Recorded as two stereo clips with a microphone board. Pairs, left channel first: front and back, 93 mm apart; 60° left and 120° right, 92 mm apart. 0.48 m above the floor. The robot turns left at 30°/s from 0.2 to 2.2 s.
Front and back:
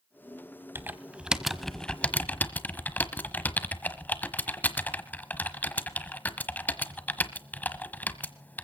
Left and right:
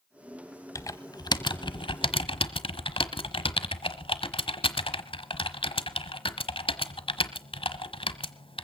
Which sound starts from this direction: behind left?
Typing on a keyboard, at 0.8 s.